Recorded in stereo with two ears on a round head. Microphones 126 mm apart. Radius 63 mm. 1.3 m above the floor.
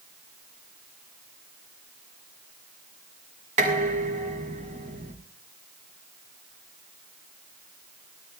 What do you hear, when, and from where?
3.6 s dishes clattering: 55° right (ahead or behind), 6 m